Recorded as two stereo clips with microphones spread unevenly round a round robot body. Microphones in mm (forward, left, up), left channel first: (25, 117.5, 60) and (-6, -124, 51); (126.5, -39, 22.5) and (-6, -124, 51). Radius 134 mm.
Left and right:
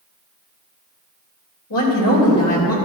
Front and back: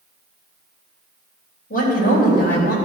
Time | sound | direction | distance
1.7 | a woman speaking | 60° left | 3 m